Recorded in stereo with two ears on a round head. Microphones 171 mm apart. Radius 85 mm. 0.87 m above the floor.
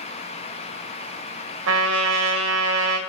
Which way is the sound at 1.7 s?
75° right (ahead or behind).